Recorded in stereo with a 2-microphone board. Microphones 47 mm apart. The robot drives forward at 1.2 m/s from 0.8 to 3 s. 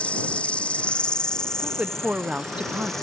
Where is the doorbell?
I don't hear a doorbell.